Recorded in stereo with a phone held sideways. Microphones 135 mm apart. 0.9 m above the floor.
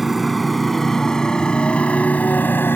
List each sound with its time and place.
0.0 s a motorcycle: centre (ahead or behind); by 2.8 s 15° left (ahead or behind)